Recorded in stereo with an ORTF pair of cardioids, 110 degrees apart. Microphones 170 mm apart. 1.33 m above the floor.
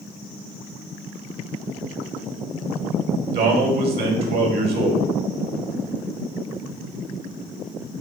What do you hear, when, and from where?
3.3 s a man speaking: 65° right, 1.8 m